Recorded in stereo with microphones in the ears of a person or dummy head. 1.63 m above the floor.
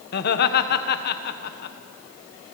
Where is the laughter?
55° left (ahead or behind), 1.4 m.